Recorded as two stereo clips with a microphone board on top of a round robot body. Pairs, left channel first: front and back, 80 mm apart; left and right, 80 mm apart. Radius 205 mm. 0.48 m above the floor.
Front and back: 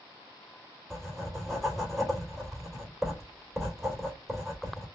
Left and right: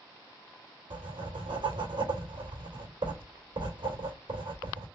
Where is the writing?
90° right, 3 m.